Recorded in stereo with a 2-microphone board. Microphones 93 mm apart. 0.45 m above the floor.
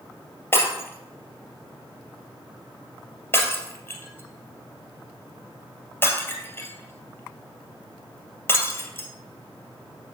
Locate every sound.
0.5 s breaking glass: 25° left (ahead or behind), 2.5 m